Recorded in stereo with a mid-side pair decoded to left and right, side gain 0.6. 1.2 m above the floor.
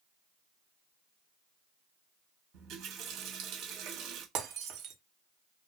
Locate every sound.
2.5 s a running tap: 65° right, 1.2 m
4.3 s breaking glass: 65° right, 1.2 m